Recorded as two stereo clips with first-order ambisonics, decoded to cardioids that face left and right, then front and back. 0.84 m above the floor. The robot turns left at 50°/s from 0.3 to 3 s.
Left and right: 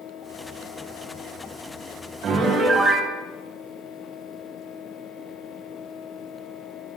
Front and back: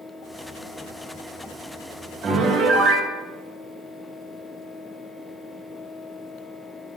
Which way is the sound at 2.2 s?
130° right.